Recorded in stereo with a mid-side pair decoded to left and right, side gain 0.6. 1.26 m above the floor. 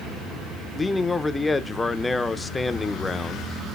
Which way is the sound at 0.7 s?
15° left.